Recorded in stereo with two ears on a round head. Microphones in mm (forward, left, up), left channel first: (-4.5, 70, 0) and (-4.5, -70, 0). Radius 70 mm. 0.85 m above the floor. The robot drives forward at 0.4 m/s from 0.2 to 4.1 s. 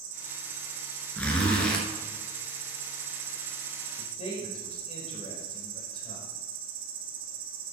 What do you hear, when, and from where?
0.0 s an insect: 65° right (ahead or behind), 2.5 m
1.2 s a zipper: 10° left (ahead or behind), 1.9 m; by 1.8 s 5° left (ahead or behind), 2 m
4.0 s a man speaking: 40° left (ahead or behind), 4.5 m